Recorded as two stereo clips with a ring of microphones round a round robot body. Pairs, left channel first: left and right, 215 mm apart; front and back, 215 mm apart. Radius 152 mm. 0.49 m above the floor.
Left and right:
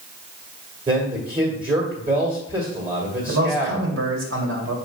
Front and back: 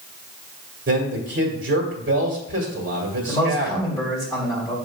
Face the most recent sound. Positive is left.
turn(degrees=-75)